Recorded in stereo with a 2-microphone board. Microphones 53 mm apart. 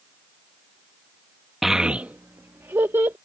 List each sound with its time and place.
1.6 s a child speaking: 5° right (ahead or behind); by 3.1 s 70° right (ahead or behind)